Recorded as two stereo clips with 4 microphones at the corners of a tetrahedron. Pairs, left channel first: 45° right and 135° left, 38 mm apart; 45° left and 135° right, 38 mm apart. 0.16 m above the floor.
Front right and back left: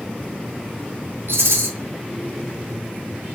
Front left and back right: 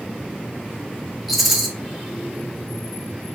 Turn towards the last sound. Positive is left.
turn(degrees=140)